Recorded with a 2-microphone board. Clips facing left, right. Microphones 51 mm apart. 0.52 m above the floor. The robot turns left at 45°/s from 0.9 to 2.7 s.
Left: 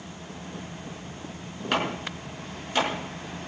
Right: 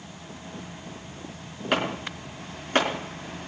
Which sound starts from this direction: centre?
Chopping, at 1.7 s.